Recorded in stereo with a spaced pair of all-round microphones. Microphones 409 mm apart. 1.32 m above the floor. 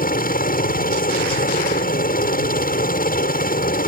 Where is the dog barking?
I don't hear a dog barking.